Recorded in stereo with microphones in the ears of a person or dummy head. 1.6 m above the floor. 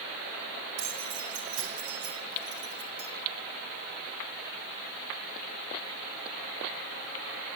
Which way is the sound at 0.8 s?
75° right (ahead or behind).